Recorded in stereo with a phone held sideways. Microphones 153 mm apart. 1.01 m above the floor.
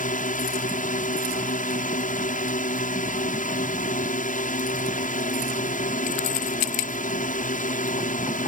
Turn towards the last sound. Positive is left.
turn(degrees=60)  # may be behind; listen again after turning